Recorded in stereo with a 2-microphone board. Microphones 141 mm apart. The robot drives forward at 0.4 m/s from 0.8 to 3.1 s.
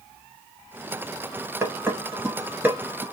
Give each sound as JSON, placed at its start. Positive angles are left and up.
{"t": 1.6, "sound": "dishes clattering", "side_deg": -15, "distance_m": 1.0}